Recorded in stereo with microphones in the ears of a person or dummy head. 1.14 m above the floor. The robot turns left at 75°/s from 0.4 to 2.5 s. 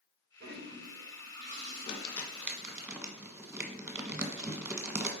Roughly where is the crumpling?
Left.